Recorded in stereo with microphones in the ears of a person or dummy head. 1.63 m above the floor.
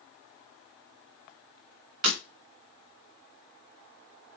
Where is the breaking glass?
45° right (ahead or behind), 1.2 m.